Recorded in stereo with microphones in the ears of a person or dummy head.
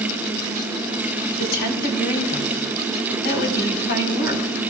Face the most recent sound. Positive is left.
turn(degrees=55)  # may be behind; listen again after turning